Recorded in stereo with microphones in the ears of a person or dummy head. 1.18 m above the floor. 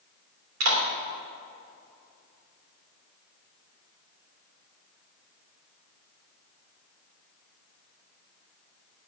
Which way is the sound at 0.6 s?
85° right.